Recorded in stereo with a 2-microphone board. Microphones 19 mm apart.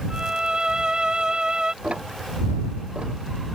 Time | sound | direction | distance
0.1 | a violin | 40° right (ahead or behind) | ?
1.8 | ticking | 75° right (ahead or behind) | ?